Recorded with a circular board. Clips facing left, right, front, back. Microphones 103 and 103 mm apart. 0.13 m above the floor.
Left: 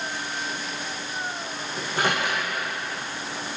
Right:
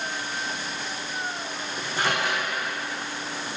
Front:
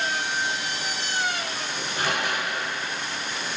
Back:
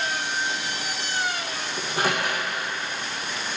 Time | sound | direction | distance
1.8 | a microwave | 135° left | 6 m